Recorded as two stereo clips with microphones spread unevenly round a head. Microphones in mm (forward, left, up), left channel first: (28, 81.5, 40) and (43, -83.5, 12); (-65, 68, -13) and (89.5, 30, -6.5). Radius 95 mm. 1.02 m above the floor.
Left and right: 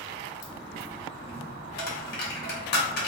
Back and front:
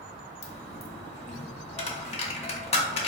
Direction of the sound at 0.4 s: 120° left.